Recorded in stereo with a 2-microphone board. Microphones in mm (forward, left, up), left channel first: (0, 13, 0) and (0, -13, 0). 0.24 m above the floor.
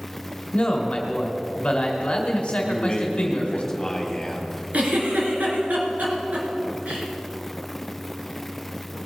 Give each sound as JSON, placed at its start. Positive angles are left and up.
{"t": 0.5, "sound": "a man speaking", "side_deg": 35, "distance_m": 1.9}
{"t": 2.6, "sound": "a man speaking", "side_deg": 20, "distance_m": 1.5}
{"t": 4.7, "sound": "a giggle", "side_deg": -70, "distance_m": 3.0}